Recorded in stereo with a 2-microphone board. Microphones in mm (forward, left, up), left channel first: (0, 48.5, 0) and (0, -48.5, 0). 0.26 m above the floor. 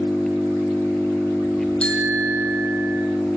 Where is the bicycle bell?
10° left (ahead or behind), 6 m.